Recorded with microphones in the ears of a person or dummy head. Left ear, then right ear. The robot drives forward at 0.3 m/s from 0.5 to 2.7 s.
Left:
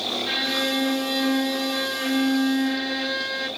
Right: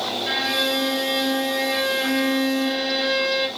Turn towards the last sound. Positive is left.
turn(degrees=-75)  # may be behind; listen again after turning